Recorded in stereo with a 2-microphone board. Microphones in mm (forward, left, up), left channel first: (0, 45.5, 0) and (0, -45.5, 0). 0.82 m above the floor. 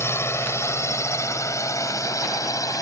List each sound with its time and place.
0.0 s a drone: 25° left (ahead or behind); by 2.8 s 40° left (ahead or behind)